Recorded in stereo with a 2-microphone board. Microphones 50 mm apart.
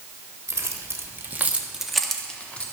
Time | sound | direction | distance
0.5 | keys jangling | 70° right (ahead or behind) | 1.5 m